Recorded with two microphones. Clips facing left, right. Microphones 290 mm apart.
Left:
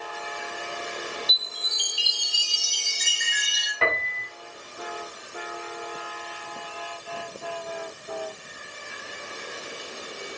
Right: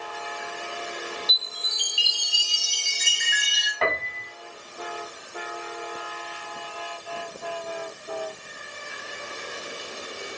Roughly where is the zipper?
No zipper in this recording.